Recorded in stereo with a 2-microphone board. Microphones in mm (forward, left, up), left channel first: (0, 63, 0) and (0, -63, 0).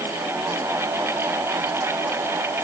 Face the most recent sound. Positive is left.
No sound to turn to.